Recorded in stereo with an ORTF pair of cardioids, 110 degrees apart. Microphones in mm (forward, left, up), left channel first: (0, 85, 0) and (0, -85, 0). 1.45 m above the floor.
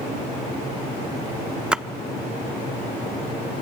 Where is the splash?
5° right, 0.6 m.